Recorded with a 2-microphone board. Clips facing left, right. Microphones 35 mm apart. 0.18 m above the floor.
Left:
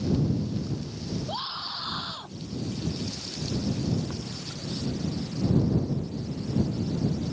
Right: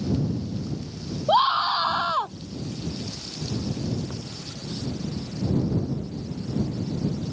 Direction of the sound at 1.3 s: 50° right (ahead or behind).